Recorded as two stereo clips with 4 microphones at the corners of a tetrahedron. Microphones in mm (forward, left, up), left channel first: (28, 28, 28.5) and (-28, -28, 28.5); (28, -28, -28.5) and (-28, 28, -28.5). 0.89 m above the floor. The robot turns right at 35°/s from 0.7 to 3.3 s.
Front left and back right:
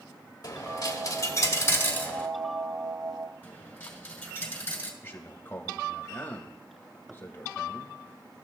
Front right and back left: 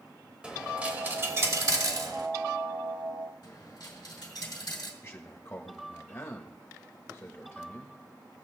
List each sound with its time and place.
0.4 s a dropped coin: 60° left, 0.9 m; by 2.3 s 115° left, 0.9 m
3.4 s a dropped coin: 25° right, 2 m
5.0 s a man speaking: 10° right, 1.1 m